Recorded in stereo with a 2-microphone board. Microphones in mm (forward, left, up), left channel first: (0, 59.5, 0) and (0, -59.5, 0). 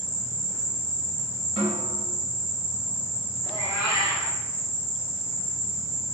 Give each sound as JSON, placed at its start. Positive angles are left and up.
{"t": 0.0, "sound": "an insect", "side_deg": -55, "distance_m": 0.9}
{"t": 1.6, "sound": "a snare drum", "side_deg": -55, "distance_m": 1.3}
{"t": 3.4, "sound": "a cat meowing", "side_deg": 35, "distance_m": 0.9}